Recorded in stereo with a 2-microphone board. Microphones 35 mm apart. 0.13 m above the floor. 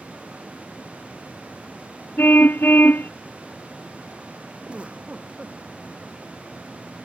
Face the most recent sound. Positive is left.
turn(degrees=-35)  # may be behind; listen again after turning